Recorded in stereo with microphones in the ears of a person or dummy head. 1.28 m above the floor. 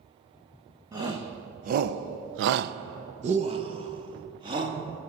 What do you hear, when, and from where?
0.9 s a shout: 10° right (ahead or behind), 1.1 m; by 4.8 s 25° right (ahead or behind), 2 m